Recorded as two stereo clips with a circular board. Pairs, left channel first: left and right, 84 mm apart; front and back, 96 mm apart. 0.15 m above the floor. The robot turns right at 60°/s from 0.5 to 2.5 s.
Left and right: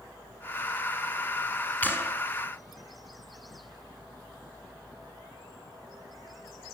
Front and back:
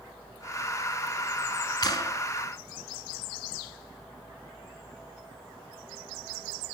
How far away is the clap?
About 1.6 m.